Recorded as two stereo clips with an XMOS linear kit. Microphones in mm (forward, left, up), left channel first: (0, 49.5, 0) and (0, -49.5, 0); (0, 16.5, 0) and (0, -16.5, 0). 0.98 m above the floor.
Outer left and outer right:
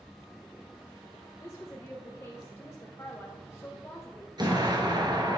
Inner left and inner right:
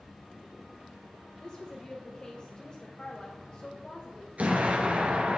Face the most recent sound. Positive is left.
turn(degrees=-45)  # may be behind; listen again after turning